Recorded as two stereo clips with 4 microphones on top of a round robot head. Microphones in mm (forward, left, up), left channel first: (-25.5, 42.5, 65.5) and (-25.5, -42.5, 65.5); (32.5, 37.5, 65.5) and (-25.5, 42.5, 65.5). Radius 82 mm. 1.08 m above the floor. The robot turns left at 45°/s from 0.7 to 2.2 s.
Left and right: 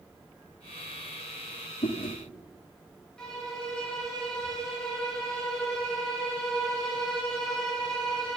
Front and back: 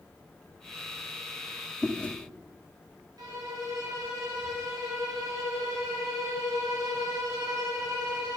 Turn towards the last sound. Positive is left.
turn(degrees=175)